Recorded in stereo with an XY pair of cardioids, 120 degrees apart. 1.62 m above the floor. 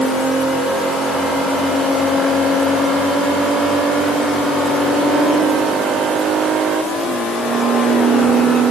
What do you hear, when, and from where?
Only background noise.